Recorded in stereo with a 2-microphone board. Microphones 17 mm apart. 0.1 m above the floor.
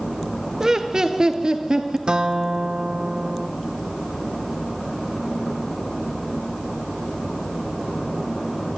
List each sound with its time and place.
0.6 s laughter: 35° right (ahead or behind), 2 m; by 2.0 s 50° right (ahead or behind), 2.5 m
2.1 s a guitar: 60° right (ahead or behind), 1.5 m